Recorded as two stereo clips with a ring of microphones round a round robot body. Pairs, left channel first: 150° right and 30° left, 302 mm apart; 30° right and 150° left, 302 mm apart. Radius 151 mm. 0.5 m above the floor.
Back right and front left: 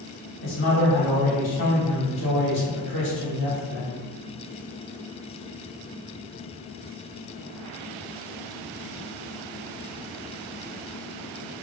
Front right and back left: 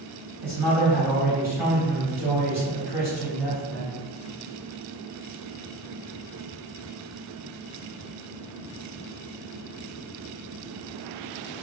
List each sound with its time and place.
0.4 s a man speaking: 130° right, 1.5 m